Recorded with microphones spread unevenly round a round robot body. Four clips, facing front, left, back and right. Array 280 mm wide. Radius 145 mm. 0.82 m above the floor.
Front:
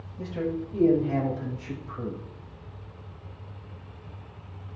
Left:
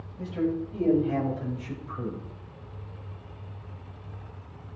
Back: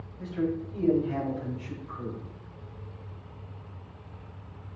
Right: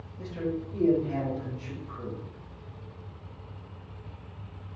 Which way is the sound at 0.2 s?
15° left.